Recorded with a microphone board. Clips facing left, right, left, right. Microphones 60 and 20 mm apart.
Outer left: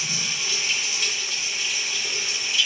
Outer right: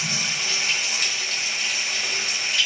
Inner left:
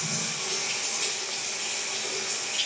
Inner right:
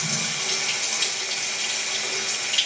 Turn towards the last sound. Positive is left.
turn(degrees=-65)  # may be behind; listen again after turning